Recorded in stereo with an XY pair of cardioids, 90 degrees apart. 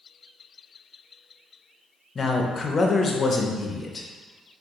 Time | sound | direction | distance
2.1 | a man speaking | 40° left | 0.6 m